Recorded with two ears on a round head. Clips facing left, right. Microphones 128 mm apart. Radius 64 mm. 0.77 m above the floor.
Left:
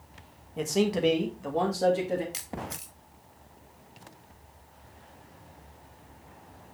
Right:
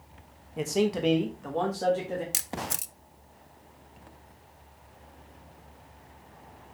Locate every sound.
0.6 s a man speaking: 5° right (ahead or behind), 1.1 m; by 2.2 s 15° left (ahead or behind), 1.6 m
2.3 s a camera shutter: 55° right (ahead or behind), 0.5 m